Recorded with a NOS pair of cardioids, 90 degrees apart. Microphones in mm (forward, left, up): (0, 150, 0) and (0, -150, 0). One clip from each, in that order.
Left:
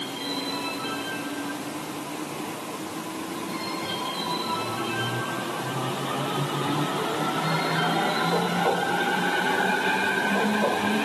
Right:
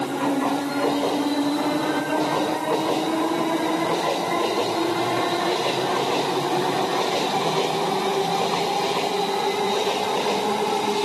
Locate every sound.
Only background noise.